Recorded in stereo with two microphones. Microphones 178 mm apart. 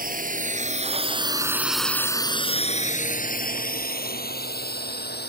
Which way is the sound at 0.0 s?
60° right (ahead or behind).